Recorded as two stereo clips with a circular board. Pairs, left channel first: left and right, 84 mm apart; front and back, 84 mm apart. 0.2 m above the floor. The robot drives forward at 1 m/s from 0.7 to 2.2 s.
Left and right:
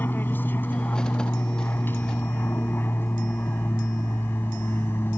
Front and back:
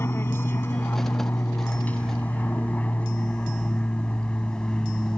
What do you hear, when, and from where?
0.0 s an aircraft: 40° left; by 5.2 s 70° left